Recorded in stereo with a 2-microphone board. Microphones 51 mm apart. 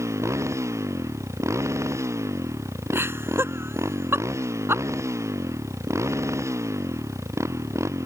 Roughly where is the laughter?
Right.